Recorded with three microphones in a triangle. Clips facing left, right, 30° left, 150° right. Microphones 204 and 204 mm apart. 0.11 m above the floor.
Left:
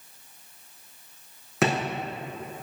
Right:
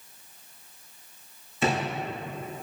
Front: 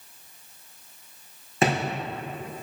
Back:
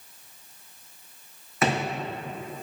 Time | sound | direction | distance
1.6 | a drawer | 90° left | 3.5 m